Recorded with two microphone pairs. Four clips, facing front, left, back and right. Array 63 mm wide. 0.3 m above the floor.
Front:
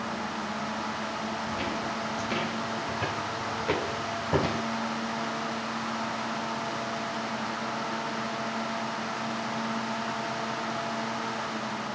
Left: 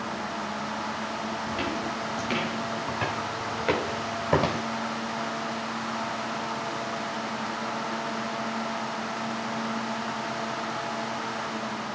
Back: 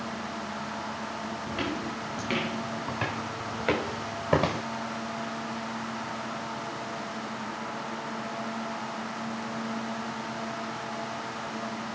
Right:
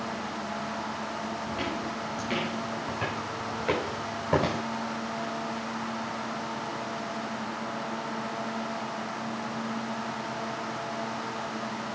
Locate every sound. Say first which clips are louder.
1.5 s footsteps: left 3 dB, front 1 dB; 150° left, 8 m; by 4.6 s 145° left, 6 m